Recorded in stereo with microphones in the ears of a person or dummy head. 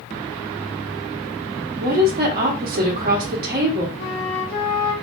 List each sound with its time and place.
1.8 s a woman speaking: 55° right (ahead or behind), 1.0 m
4.0 s a flute: 45° left (ahead or behind), 1.0 m